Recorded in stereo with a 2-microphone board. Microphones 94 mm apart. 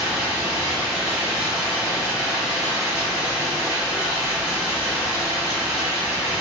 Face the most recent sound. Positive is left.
turn(degrees=-5)  # may be behind; listen again after turning